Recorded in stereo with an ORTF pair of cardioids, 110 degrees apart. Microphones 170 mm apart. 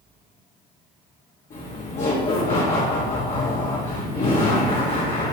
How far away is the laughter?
About 2.5 m.